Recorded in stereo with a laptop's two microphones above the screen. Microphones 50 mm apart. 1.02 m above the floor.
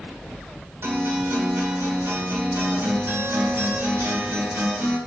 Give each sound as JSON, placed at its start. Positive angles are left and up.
{"t": 0.8, "sound": "a guitar", "side_deg": -70, "distance_m": 2.5}